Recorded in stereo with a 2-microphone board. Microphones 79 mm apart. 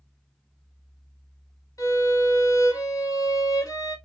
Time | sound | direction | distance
1.8 | a violin | 45° left (ahead or behind) | 1.3 m